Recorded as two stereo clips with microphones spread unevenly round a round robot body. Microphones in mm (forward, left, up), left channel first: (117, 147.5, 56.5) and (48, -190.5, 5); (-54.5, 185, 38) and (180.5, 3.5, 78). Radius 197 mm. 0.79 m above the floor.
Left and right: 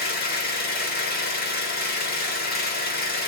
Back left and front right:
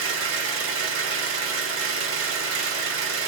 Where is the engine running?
10° left, 1.2 m.